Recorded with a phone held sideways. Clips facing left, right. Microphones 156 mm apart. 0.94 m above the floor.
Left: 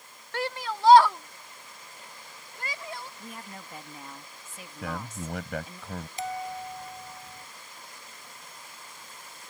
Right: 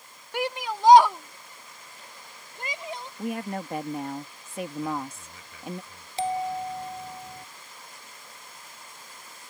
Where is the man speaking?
75° left (ahead or behind).